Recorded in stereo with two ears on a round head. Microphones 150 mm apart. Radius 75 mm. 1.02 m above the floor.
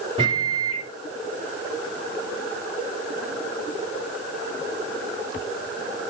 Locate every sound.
0.2 s a microwave: 30° right (ahead or behind), 2.5 m